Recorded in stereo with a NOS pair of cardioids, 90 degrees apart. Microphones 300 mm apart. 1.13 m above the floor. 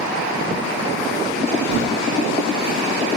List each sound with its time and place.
1.7 s a whoosh: 60° right, 1.7 m